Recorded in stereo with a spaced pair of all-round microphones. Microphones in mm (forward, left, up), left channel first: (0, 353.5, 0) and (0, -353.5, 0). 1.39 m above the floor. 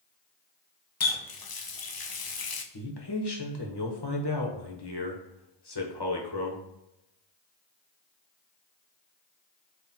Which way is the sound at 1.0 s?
35° left (ahead or behind).